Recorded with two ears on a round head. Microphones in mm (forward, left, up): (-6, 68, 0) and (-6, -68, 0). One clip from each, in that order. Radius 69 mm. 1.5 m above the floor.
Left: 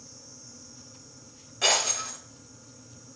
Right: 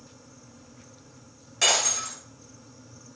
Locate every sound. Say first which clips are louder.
1.6 s breaking glass: right 1 dB; 55° right (ahead or behind), 9 m